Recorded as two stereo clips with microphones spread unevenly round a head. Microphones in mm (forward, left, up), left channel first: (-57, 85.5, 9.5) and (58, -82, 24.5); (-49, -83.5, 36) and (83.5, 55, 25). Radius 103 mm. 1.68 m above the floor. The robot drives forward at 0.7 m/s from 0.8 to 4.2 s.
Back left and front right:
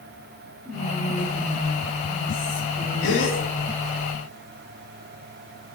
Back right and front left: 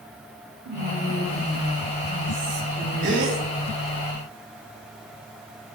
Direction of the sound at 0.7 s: 45° left.